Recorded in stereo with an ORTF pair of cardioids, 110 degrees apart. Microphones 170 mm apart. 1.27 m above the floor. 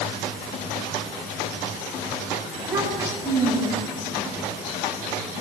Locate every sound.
2.5 s a child speaking: 15° right, 7.5 m